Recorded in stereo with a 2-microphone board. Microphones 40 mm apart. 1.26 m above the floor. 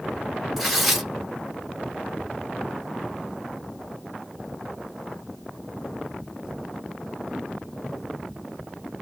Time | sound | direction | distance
0.6 | tearing paper | centre (ahead or behind) | 1.6 m